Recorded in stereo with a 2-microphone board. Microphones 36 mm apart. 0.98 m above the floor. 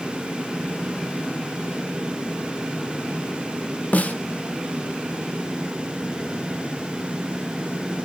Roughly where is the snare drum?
Left.